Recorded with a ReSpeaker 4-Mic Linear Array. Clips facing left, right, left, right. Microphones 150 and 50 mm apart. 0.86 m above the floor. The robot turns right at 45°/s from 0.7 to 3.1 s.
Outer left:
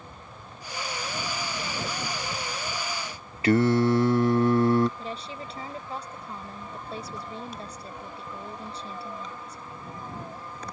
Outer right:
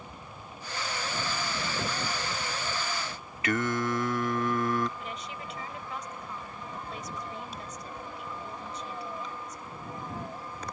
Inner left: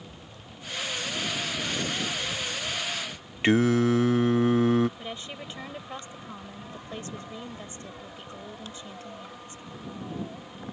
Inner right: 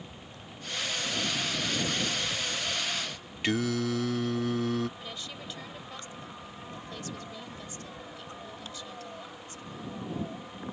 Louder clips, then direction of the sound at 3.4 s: Outer left 8 dB, inner left 7 dB; 35° left (ahead or behind).